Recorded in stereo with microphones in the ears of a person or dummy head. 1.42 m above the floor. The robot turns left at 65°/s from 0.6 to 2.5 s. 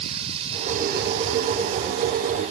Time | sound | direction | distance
0.0 | running water | 25° right | ?